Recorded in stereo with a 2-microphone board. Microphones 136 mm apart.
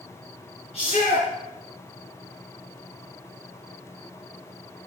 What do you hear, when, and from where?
0.7 s a shout: 45° left (ahead or behind), 4.5 m